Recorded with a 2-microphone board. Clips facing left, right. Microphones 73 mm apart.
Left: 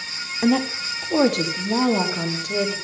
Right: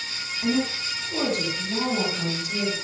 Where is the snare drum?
No snare drum in this recording.